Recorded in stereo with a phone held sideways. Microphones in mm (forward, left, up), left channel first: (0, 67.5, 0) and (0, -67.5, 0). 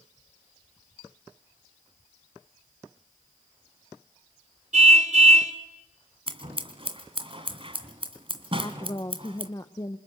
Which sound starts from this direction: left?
A woman speaking, at 8.6 s.